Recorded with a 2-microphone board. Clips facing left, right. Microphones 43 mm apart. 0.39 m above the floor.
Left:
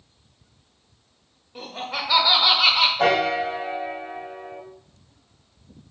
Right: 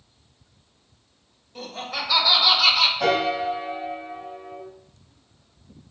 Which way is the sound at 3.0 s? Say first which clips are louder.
Left 2 dB; 60° left (ahead or behind).